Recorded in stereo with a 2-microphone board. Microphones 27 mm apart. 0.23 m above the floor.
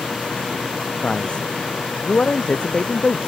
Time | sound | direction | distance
1.0 | a man speaking | 45° left (ahead or behind) | ?